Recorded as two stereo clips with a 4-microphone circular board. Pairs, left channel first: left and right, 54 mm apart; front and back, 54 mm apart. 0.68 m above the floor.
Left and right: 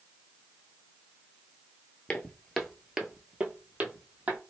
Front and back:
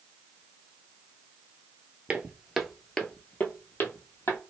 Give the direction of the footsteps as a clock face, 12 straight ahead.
7 o'clock.